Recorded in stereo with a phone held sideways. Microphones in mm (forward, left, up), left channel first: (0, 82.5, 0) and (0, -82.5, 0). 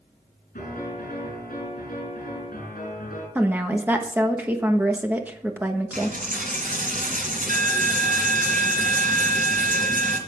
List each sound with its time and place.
0.6 s a piano: 65° left (ahead or behind), 7 m
3.4 s a woman speaking: 15° right (ahead or behind), 1.0 m
5.9 s a dropped coin: 65° right (ahead or behind), 2 m